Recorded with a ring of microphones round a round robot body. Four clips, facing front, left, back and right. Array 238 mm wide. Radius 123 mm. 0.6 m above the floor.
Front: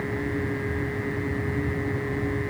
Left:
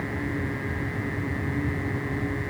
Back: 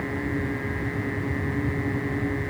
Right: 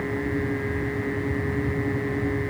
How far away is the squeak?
I don't hear a squeak.